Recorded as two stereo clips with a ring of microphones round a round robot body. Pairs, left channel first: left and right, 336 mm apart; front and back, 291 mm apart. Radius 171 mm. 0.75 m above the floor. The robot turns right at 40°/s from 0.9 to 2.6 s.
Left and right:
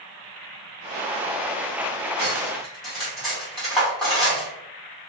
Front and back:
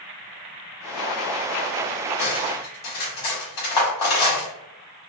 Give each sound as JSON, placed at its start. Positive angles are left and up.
{"t": 2.2, "sound": "cutlery clinking", "azimuth_deg": -15, "distance_m": 1.4}